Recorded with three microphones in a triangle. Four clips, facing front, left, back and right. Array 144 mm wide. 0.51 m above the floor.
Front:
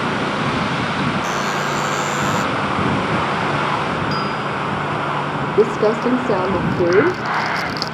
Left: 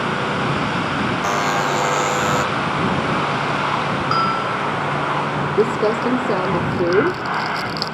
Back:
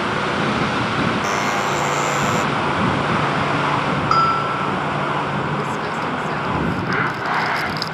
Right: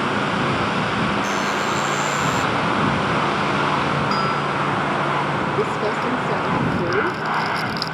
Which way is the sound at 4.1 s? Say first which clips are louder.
Left 1 dB, back 4 dB; 155° left.